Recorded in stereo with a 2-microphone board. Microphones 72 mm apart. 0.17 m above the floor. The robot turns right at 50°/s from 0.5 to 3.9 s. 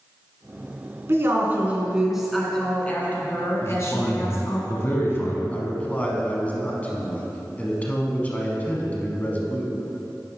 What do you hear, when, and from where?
1.1 s a woman speaking: 60° right, 1.5 m; by 4.6 s 80° left, 1.5 m
3.6 s a man speaking: 35° left (ahead or behind), 1.4 m
5.5 s a man speaking: 20° left (ahead or behind), 1.1 m